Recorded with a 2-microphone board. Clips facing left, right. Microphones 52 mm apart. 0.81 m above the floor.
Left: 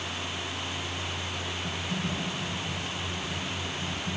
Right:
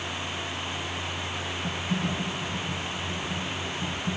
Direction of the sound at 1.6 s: 65° right (ahead or behind).